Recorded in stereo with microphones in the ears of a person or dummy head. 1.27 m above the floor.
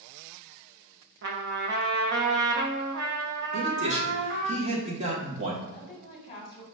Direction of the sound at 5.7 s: 30° left (ahead or behind).